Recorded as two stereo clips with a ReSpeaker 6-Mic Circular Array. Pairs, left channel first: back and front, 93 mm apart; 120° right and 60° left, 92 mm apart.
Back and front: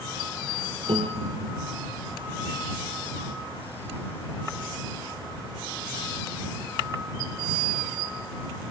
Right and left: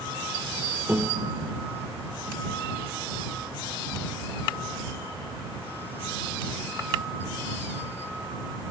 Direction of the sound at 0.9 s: 10° right.